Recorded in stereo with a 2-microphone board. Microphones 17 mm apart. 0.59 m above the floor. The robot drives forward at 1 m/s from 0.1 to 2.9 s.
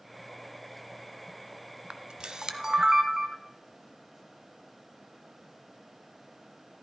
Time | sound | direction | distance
1.9 | a camera shutter | 65° right (ahead or behind) | 0.7 m